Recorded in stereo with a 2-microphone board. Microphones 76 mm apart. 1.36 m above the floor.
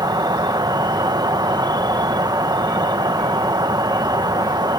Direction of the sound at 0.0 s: 60° right (ahead or behind).